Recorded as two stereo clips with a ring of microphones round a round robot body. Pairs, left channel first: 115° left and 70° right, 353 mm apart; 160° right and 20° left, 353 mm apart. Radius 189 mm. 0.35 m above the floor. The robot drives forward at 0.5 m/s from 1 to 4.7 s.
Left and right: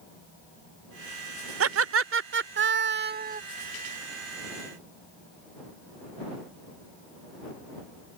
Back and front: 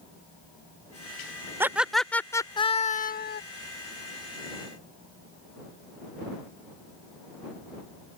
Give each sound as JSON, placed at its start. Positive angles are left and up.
{"t": 1.6, "sound": "laughter", "azimuth_deg": -55}